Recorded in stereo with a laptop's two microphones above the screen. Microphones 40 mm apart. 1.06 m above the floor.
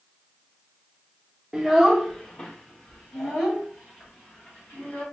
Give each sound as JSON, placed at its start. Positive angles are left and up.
{"t": 1.5, "sound": "a child speaking", "side_deg": -10, "distance_m": 0.7}